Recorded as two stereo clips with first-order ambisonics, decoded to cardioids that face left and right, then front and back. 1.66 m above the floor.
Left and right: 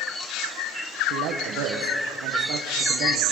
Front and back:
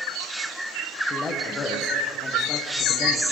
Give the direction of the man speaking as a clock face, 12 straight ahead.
2 o'clock.